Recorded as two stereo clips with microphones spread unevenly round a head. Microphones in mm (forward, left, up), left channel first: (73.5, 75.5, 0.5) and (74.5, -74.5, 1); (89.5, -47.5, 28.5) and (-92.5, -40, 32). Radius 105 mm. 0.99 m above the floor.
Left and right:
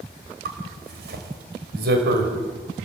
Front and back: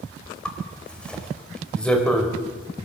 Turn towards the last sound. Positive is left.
turn(degrees=-85)